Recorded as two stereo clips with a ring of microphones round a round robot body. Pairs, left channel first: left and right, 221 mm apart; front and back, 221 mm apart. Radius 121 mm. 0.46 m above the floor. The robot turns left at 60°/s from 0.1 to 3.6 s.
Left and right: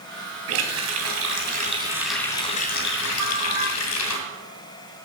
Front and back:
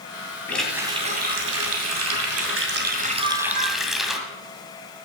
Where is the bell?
125° right, 2.5 m; by 3.7 s 150° right, 2.5 m.